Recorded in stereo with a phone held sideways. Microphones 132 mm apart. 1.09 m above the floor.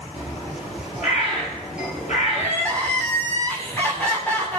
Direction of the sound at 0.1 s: 65° left (ahead or behind).